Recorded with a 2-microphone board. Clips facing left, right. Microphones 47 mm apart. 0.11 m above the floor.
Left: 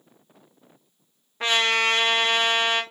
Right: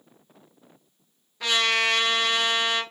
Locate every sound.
1.4 s a trumpet: 35° left (ahead or behind), 0.6 m